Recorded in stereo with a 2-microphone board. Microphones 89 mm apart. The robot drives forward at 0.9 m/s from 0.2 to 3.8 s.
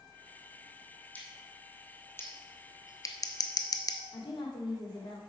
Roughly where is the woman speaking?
Left.